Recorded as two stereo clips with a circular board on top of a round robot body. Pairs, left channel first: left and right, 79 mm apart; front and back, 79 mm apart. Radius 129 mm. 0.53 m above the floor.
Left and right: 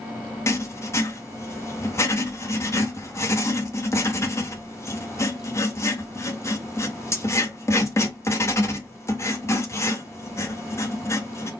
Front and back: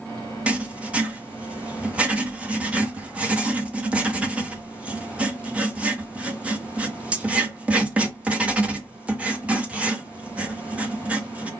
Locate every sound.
0.5 s writing: 115° left, 1.5 m